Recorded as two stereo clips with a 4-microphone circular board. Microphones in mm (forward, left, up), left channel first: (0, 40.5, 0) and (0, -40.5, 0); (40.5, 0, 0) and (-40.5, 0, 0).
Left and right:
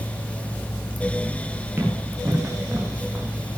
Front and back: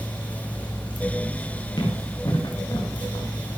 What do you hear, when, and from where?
1.8 s running footsteps: 30° right, 7 m; by 3.3 s 25° right, 5 m